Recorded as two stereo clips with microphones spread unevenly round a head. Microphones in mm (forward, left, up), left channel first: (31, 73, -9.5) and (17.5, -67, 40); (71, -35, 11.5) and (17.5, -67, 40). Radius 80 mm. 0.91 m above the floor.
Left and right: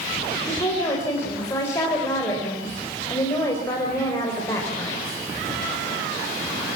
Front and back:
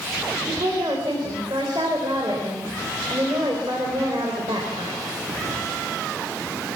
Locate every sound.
0.5 s a woman speaking: 155° left, 4 m